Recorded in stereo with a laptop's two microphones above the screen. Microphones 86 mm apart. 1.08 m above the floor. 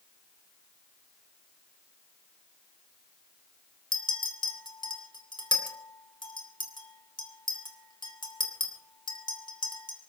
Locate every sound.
3.9 s a clink: 60° left (ahead or behind), 2.5 m